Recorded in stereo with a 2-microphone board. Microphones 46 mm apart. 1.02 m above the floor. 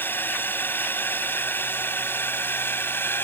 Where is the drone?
45° left (ahead or behind); by 3.2 s 50° left (ahead or behind).